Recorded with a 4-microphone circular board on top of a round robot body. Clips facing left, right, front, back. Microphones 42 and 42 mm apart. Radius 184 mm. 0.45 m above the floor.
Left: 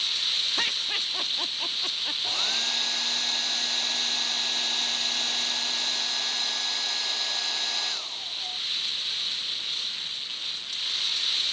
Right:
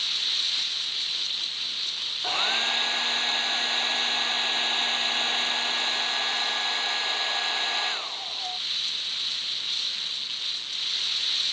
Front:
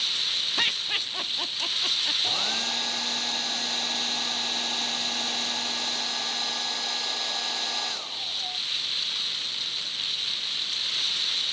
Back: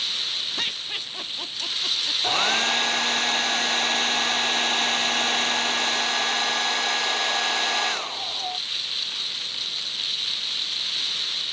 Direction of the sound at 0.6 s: 65° left.